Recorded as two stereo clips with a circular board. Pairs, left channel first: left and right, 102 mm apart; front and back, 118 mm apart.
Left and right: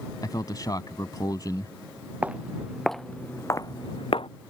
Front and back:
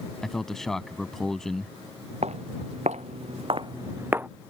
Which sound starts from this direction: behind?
Footsteps, at 2.2 s.